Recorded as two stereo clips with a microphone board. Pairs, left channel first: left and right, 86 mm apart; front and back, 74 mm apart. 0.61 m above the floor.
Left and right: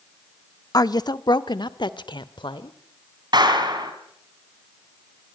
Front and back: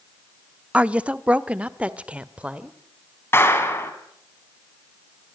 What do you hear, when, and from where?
0.7 s a woman speaking: 110° left, 0.8 m; by 2.8 s 105° left, 1.9 m
3.3 s a clap: 60° right, 4 m